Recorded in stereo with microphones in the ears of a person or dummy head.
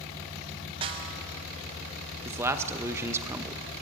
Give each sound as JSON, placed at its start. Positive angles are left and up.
{"t": 0.8, "sound": "a snare drum", "side_deg": -30, "distance_m": 0.6}
{"t": 2.2, "sound": "a man speaking", "side_deg": -20, "distance_m": 0.7}